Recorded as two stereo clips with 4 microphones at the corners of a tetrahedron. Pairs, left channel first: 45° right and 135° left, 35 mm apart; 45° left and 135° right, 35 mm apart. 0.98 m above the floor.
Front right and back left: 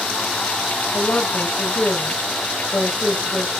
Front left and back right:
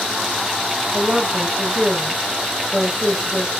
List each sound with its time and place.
0.9 s a woman speaking: 60° right, 5 m